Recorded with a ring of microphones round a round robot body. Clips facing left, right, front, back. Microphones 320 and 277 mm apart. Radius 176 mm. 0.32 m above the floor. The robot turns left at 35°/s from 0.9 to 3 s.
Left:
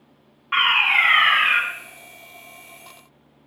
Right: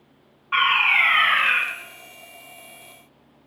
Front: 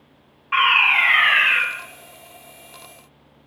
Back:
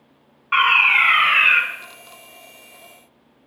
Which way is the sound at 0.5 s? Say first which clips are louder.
Even, even; 120° left.